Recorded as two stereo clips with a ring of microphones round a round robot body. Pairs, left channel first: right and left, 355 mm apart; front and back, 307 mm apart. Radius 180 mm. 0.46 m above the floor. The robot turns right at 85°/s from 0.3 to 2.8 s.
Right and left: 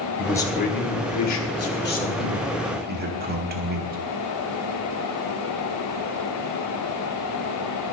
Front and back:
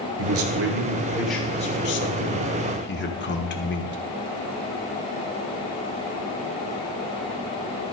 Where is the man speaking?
175° right, 1.6 m; by 4.0 s 40° left, 1.6 m.